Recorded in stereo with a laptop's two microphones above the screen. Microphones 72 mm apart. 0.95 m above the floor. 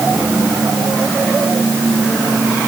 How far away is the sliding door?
No sliding door in this recording.